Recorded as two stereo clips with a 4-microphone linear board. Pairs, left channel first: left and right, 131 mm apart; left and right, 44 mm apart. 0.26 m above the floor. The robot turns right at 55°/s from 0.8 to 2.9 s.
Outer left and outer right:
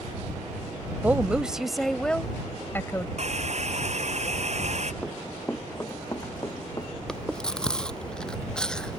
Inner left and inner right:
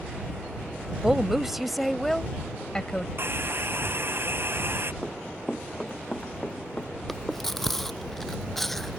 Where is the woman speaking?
15° right (ahead or behind); by 3.1 s 20° left (ahead or behind).